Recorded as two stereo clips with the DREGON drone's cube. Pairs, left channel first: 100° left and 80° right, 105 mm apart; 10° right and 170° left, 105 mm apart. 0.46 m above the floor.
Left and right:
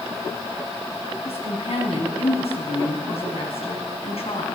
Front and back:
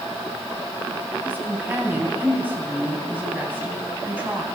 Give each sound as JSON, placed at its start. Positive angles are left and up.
{"t": 1.2, "sound": "a woman speaking", "azimuth_deg": 100, "distance_m": 3.5}